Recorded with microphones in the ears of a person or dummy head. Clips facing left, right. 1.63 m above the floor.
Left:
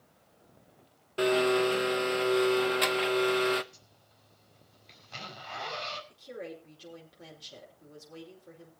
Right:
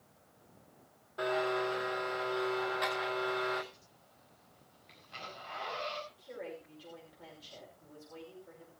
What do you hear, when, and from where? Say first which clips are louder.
1.2 s a blender: left 8 dB; 40° left (ahead or behind), 0.9 m
3.7 s a zipper: even; 60° left (ahead or behind), 5 m
6.1 s a woman speaking: left 2 dB; 25° left (ahead or behind), 6 m